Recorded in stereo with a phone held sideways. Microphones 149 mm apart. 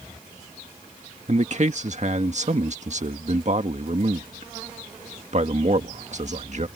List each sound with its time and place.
1.3 s a man speaking: 50° right (ahead or behind)